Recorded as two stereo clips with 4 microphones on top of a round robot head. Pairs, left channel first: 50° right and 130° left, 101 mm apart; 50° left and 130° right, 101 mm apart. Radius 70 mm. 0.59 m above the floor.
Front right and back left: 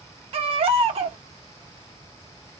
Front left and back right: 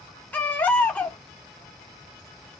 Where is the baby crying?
120° left, 0.8 m.